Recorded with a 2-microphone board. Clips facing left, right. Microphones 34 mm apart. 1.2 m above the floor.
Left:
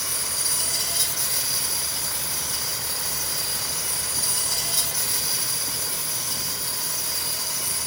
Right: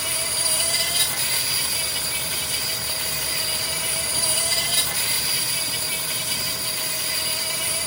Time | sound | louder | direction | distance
0.0 | an insect | right 4 dB | 55° right (ahead or behind) | 2 m